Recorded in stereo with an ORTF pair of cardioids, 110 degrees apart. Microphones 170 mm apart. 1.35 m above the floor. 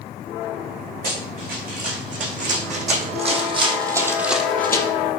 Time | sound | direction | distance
1.0 | running footsteps | 55° right | 5.5 m